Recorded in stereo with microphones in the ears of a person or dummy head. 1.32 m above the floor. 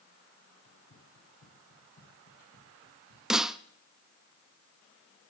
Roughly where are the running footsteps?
Left.